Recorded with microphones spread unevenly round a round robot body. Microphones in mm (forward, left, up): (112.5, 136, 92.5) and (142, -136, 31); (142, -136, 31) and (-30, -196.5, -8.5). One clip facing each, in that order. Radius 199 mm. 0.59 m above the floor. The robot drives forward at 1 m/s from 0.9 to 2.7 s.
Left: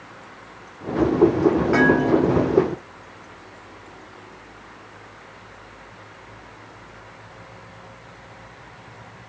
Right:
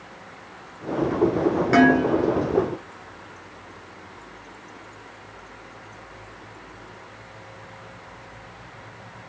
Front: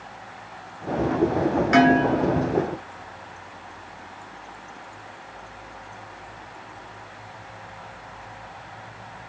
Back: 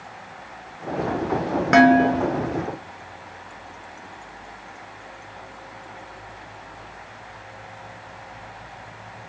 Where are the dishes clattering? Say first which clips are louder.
Even, back 4 dB; 140° right, 1.6 m; by 2.6 s 155° right, 2.5 m.